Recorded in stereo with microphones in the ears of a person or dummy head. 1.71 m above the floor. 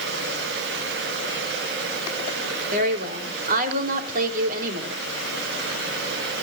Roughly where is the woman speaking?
Right.